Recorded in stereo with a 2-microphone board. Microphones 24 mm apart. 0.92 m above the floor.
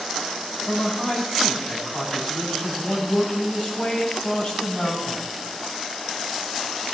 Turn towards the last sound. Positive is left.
turn(degrees=35)  # may be behind; listen again after turning